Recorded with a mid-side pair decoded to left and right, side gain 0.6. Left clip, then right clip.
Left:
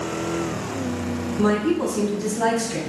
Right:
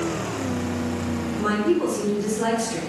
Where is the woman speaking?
35° left, 1.7 m.